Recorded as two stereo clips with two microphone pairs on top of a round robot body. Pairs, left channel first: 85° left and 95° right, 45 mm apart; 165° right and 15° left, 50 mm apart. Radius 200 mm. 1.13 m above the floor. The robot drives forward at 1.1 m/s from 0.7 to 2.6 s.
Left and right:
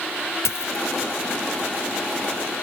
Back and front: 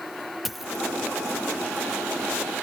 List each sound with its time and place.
0.5 s a dropped coin: 100° left; by 0.8 s 115° left